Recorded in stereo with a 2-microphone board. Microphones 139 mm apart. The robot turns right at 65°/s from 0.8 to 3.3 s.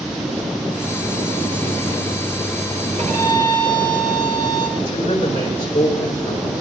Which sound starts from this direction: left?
A man speaking, at 4.8 s.